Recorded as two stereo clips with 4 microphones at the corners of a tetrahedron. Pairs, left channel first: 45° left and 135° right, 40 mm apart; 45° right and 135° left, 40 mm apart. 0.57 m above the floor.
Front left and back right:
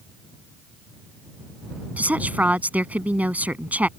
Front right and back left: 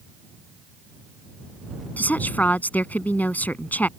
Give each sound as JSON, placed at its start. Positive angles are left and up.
{"t": 2.0, "sound": "a woman speaking", "azimuth_deg": -90}